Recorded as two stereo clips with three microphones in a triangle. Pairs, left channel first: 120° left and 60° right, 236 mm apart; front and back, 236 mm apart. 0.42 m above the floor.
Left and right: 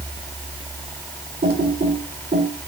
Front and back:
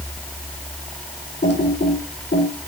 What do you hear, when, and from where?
1.4 s typing on a keyboard: 30° right, 1.9 m